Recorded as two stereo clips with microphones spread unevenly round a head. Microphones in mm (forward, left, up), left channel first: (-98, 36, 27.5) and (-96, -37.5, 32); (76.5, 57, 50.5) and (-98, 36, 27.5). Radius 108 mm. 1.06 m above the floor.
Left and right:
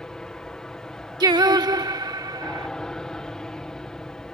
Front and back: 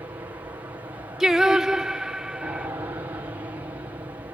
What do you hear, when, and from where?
0.0 s an aircraft: 150° left
1.2 s singing: 80° right